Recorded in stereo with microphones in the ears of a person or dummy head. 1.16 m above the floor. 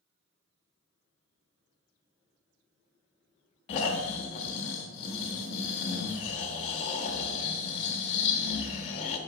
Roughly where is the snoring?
Left.